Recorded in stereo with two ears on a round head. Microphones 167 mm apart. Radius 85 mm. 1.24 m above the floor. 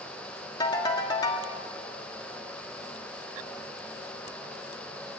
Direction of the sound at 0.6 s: 20° left (ahead or behind).